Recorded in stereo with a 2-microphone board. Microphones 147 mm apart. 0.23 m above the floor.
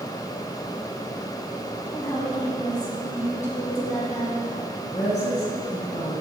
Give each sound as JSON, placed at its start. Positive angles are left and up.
{"t": 1.9, "sound": "a woman speaking", "side_deg": 50, "distance_m": 4.0}
{"t": 4.9, "sound": "a woman speaking", "side_deg": 50, "distance_m": 2.5}